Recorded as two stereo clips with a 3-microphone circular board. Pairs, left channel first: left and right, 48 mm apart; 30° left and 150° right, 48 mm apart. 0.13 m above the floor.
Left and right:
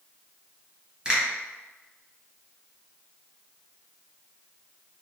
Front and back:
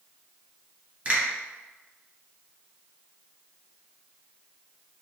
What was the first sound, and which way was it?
A finger snap, 150° right.